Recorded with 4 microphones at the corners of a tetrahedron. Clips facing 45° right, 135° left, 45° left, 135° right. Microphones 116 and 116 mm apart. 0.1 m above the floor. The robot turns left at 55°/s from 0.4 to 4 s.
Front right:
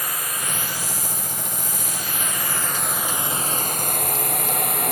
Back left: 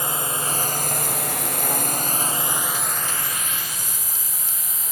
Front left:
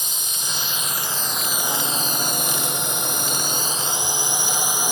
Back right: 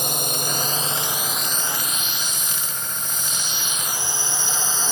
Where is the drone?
160° right; by 4.9 s 30° right.